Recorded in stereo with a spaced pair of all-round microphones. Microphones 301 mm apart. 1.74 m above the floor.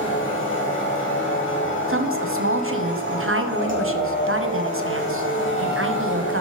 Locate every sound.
0.0 s a machine running: 40° left (ahead or behind), 2.5 m
1.9 s a woman speaking: 45° right (ahead or behind), 1.0 m